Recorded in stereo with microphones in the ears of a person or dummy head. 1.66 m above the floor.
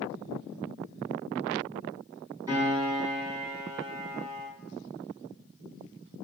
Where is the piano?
20° right (ahead or behind), 1.3 m.